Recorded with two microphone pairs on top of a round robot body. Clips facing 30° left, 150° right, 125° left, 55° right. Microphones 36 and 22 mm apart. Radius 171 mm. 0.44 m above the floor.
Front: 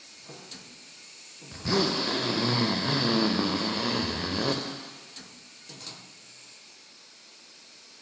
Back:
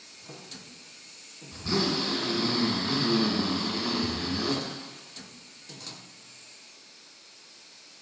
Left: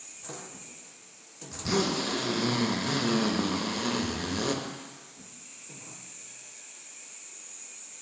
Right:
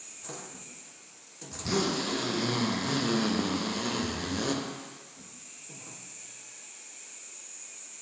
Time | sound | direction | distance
1.5 | a zipper | 40° left | 0.8 m